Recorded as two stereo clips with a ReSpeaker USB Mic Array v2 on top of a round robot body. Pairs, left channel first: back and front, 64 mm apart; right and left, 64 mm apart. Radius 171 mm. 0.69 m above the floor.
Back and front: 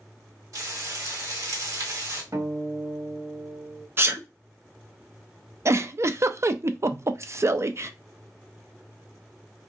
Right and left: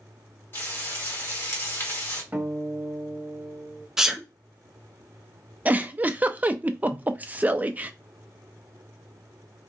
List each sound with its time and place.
0.5 s frying: 35° right, 1.7 m
2.3 s a guitar: 25° left, 1.9 m
4.0 s a sneeze: 10° left, 0.6 m
5.7 s a giggle: 30° left, 0.5 m